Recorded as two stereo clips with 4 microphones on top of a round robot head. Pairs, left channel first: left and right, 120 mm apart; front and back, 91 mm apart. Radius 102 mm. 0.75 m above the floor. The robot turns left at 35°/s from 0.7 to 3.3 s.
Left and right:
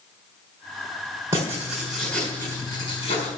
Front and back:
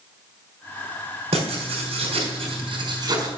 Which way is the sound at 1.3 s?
160° right.